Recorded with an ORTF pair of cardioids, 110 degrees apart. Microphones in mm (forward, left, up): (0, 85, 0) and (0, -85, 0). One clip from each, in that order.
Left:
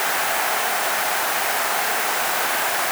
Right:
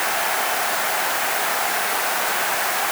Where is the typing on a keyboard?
I don't hear typing on a keyboard.